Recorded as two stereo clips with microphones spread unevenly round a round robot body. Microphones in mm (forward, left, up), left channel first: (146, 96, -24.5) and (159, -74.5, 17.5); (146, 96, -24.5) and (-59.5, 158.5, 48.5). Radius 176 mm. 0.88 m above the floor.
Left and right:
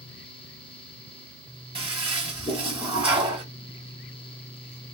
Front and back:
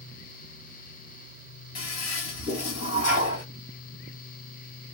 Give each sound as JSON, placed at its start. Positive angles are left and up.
{"t": 1.8, "sound": "a toilet flushing", "azimuth_deg": -30, "distance_m": 1.6}